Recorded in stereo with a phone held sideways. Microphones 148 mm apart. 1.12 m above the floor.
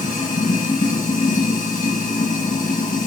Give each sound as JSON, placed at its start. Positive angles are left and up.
{"t": 0.0, "sound": "running water", "side_deg": 65, "distance_m": 5.5}